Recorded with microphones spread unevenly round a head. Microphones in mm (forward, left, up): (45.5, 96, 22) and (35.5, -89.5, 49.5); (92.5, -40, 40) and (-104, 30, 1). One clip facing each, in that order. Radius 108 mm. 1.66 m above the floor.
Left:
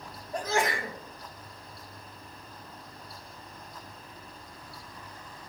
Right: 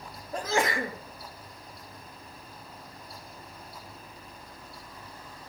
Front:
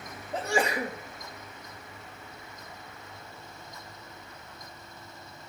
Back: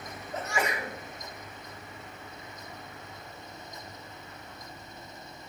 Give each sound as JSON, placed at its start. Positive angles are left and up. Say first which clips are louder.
{"t": 0.3, "sound": "a sneeze", "louder": "right 1 dB, front 4 dB", "azimuth_deg": -80, "distance_m": 1.5}